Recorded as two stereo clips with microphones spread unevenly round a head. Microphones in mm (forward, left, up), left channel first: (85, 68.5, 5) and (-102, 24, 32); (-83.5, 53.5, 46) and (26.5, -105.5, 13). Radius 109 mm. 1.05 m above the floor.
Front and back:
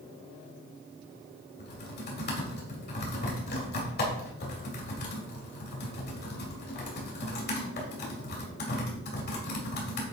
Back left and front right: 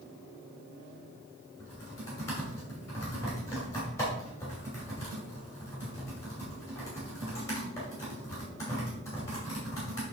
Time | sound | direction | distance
1.6 | typing on a keyboard | 50° left | 2.5 m